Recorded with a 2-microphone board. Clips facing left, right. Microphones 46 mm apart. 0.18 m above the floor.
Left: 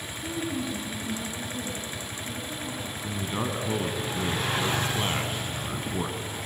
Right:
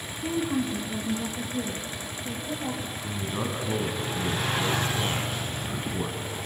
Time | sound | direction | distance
0.2 | a woman speaking | 30° right (ahead or behind) | 1.2 m
3.0 | a man speaking | 15° left (ahead or behind) | 1.2 m